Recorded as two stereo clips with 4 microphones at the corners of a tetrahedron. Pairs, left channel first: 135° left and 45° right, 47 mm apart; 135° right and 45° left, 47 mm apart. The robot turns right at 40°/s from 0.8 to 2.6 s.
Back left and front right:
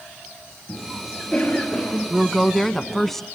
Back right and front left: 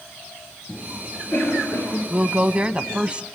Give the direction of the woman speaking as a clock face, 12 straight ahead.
11 o'clock.